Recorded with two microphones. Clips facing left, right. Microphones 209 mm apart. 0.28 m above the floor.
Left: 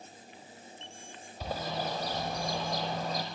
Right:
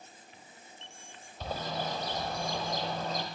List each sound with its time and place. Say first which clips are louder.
1.4 s a bird: left 1 dB; 10° left (ahead or behind), 4.5 m